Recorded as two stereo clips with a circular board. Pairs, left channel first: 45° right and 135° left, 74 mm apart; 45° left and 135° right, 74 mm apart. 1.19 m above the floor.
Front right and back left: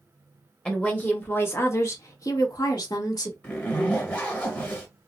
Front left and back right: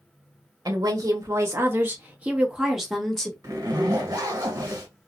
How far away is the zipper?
About 1.5 m.